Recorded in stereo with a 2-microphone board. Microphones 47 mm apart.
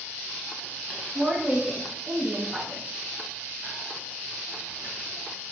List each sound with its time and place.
1.1 s a woman speaking: 15° right (ahead or behind), 1.6 m